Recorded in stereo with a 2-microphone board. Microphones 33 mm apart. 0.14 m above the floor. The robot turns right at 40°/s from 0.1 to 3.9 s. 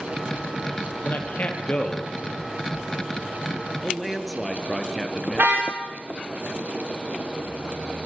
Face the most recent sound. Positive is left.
turn(degrees=-65)  # may be behind; listen again after turning